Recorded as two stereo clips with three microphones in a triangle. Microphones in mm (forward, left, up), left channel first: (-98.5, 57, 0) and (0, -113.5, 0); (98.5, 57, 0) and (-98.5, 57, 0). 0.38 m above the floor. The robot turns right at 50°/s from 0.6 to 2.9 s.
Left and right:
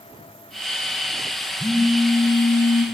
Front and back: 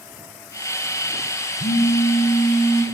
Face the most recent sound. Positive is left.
turn(degrees=95)